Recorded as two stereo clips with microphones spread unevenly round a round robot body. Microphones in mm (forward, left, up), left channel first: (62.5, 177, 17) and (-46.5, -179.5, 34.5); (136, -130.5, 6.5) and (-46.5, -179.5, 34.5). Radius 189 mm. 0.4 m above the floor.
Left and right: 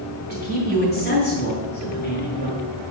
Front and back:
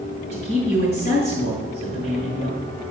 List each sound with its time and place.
0.3 s a man speaking: 135° left, 3 m